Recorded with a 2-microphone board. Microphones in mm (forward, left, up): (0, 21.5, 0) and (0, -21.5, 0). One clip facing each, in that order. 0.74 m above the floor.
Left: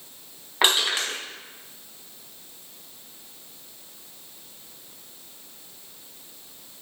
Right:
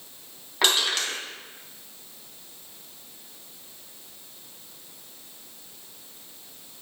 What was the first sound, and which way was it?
Crushing, 25° left (ahead or behind).